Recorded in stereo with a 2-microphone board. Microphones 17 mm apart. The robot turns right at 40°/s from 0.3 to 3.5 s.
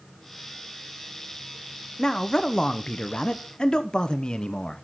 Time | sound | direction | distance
2.0 | a man speaking | 45° left | 0.8 m